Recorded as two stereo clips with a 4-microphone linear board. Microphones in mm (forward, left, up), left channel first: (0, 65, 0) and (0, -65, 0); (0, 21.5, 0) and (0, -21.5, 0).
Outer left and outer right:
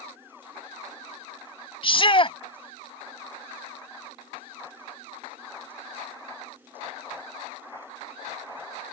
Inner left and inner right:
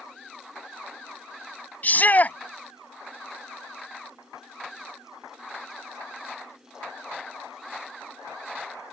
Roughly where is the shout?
Left.